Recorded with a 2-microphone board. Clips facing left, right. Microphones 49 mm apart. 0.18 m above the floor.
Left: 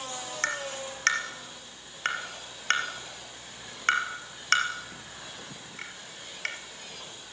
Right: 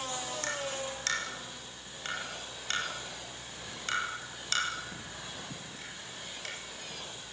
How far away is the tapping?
About 4 m.